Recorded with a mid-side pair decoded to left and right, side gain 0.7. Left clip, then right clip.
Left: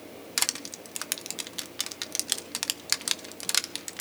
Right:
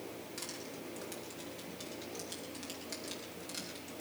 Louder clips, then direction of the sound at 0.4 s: Left 17 dB; 60° left.